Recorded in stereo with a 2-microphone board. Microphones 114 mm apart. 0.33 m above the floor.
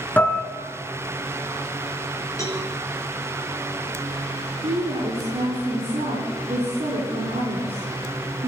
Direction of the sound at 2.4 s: 30° left (ahead or behind).